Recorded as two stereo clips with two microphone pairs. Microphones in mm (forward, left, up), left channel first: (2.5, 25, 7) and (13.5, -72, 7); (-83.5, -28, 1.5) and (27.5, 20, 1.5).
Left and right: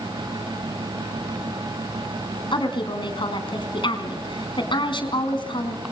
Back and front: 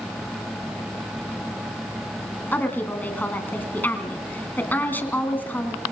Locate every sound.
2.5 s a woman speaking: 130° left, 3.5 m